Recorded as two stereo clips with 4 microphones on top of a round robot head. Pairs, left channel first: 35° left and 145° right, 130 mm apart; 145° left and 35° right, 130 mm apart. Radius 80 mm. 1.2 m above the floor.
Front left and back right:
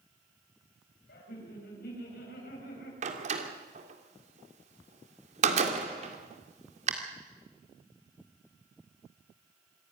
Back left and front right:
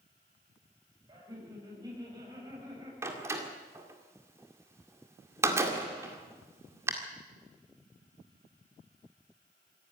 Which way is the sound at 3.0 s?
105° right.